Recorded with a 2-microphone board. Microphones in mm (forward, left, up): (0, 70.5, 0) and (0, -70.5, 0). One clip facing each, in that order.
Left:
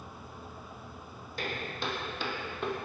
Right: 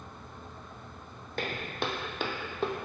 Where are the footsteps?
65° right (ahead or behind), 0.7 m; by 2.8 s 30° right (ahead or behind), 0.5 m.